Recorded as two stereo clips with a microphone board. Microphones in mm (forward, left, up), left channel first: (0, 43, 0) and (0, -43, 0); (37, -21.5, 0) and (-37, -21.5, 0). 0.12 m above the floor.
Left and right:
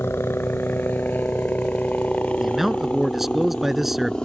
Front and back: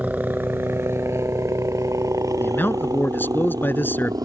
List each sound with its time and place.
0.0 s a helicopter: 125° left; by 4.2 s 170° left
2.4 s a man speaking: 5° right